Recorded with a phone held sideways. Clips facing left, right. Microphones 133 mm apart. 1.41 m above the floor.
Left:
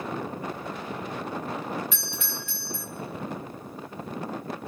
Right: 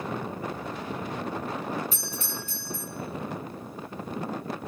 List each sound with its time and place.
1.9 s a doorbell: 40° right (ahead or behind), 3 m